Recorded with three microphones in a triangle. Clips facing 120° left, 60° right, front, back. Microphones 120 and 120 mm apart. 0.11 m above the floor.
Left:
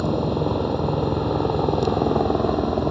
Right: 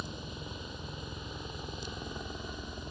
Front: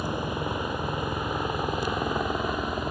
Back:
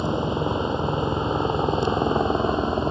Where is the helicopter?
115° left; by 2.9 s 120° left.